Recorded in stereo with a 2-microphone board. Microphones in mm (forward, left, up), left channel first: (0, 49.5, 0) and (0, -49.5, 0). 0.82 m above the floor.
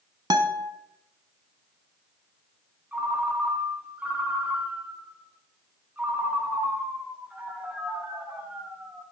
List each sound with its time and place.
0.3 s a guitar: 45° right (ahead or behind), 1.0 m
2.9 s a ringtone: 15° right (ahead or behind), 3 m